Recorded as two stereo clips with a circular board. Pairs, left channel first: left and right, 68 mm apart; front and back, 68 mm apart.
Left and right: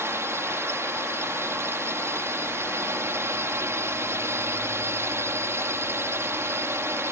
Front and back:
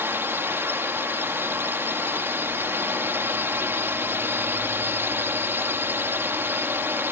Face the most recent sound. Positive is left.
turn(degrees=-130)